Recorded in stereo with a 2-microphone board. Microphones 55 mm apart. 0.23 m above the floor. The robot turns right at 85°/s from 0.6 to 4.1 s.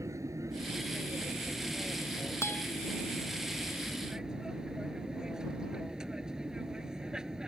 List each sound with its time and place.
0.0 s an aircraft: 105° right; by 7.5 s 170° right
2.4 s a guitar: 55° left (ahead or behind); by 2.6 s 30° left (ahead or behind)